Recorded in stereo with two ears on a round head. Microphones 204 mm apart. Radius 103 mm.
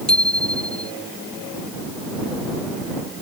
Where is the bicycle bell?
5° left (ahead or behind).